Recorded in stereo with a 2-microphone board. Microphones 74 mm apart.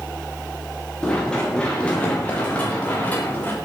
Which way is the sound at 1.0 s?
10° left (ahead or behind).